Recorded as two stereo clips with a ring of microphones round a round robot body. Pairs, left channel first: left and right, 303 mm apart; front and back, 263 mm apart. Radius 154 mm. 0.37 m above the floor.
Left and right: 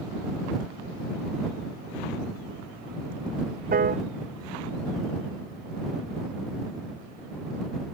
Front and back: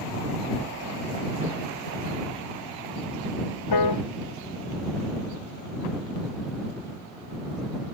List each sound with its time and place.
3.7 s a piano: 25° right